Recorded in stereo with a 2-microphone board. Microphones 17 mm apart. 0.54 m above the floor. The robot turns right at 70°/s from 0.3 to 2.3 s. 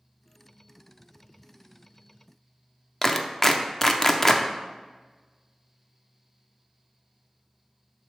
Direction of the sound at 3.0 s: 20° left (ahead or behind).